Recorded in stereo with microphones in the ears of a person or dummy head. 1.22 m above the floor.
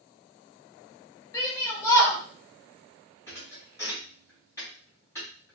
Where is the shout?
20° left (ahead or behind), 0.7 m.